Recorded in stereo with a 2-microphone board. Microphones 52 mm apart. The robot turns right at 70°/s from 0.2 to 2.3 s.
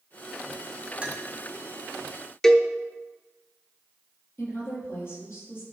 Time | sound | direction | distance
1.0 | a clink | 20° right (ahead or behind) | 1.1 m
2.4 | a cowbell | 10° left (ahead or behind) | 0.6 m
4.4 | a woman speaking | 50° left (ahead or behind) | 4 m